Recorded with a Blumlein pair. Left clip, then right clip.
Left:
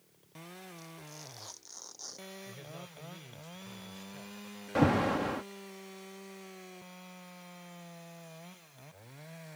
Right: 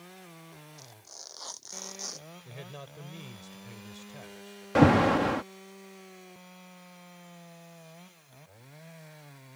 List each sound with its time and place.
0.8 s tearing paper: 20° right
2.5 s a man speaking: 20° right
4.8 s an alarm: 70° right